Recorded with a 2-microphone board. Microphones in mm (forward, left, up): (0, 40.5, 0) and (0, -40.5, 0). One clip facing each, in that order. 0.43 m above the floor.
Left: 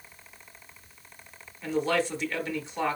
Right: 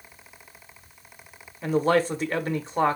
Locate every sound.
1.6 s a man speaking: 40° right (ahead or behind), 0.9 m